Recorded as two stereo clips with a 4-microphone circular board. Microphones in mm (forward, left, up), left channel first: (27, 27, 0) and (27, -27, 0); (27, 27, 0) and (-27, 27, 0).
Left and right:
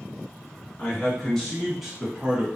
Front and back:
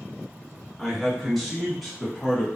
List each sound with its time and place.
0.8 s a man speaking: 90° left, 1.2 m; by 2.5 s 90° right, 1.2 m